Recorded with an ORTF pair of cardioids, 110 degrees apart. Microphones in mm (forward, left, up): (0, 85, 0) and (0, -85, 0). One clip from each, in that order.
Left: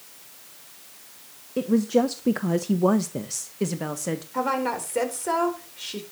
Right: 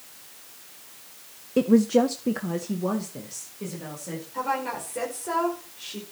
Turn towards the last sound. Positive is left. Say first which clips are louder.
# left 2 dB
turn(degrees=45)